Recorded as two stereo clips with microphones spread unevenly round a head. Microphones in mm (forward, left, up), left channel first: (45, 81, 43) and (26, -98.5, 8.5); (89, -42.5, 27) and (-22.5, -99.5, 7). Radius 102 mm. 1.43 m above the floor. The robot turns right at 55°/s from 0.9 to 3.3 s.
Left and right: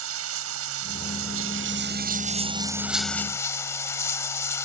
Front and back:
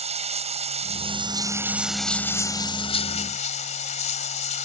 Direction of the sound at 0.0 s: 120° right.